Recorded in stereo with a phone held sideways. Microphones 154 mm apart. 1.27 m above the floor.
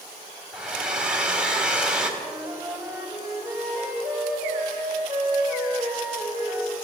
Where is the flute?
10° right (ahead or behind), 3 m.